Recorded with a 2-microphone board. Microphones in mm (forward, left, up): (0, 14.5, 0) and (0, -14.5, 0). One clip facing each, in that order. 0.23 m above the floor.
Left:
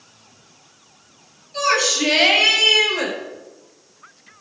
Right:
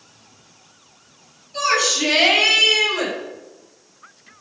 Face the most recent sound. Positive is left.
turn(degrees=25)  # may be behind; listen again after turning